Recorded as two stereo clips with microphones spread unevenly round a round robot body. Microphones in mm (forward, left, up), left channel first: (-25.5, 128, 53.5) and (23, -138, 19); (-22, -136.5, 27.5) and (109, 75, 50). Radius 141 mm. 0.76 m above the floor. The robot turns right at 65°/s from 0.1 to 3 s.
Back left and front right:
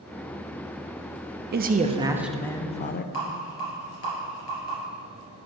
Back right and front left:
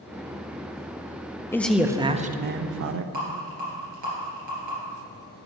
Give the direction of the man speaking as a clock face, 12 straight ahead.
2 o'clock.